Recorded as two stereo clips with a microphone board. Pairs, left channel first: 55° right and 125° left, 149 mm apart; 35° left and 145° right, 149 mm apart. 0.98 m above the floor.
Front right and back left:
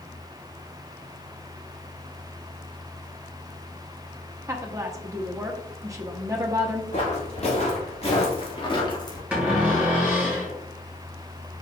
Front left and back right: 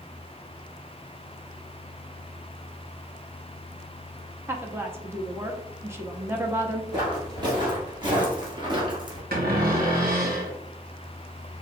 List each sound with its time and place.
4.5 s a woman speaking: 160° left, 0.8 m
6.9 s footsteps: 90° right, 2.5 m; by 9.2 s 105° right, 1.2 m
9.3 s a cupboard door: 155° right, 1.6 m